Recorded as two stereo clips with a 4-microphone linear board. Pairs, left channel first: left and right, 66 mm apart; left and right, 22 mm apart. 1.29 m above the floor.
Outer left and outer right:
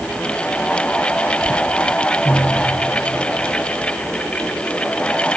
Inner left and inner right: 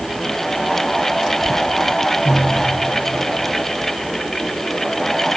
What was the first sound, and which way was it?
Only background noise.